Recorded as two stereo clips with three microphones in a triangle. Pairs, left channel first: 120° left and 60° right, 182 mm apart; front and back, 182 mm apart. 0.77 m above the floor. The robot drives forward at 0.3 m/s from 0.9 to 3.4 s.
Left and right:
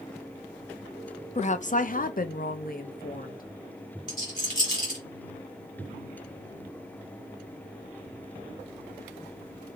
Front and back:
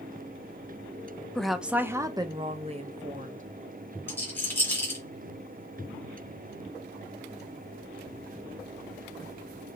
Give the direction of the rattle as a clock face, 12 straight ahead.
9 o'clock.